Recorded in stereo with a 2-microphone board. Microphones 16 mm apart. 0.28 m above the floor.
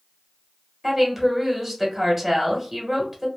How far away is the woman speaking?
About 1.1 m.